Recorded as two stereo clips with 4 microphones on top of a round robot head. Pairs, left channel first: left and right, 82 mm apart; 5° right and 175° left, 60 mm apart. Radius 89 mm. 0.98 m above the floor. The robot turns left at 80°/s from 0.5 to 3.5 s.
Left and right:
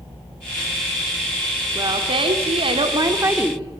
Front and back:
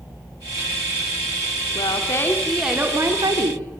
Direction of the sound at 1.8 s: 30° right.